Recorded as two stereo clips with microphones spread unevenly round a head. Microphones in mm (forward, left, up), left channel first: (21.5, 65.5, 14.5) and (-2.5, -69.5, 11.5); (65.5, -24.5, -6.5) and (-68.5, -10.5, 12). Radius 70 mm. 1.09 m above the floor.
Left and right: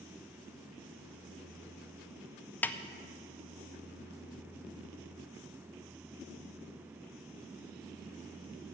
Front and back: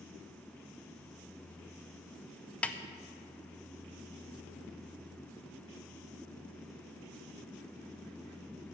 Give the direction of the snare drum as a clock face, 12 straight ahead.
11 o'clock.